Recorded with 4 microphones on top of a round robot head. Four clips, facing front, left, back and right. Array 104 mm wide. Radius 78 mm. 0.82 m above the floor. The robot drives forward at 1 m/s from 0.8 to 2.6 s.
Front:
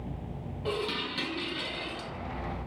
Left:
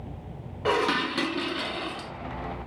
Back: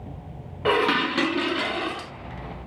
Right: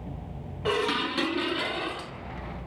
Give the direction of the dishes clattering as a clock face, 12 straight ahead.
7 o'clock.